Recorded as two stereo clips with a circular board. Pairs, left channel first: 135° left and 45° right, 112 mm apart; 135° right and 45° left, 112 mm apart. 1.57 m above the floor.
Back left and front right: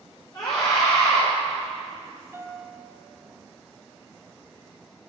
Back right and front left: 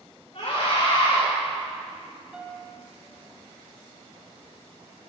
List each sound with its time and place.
0.3 s a scream: 170° right, 6.5 m
2.3 s a piano: 25° right, 1.5 m